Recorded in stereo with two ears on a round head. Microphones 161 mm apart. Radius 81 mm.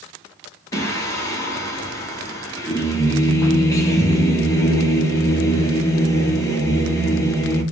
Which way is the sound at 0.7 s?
15° left (ahead or behind).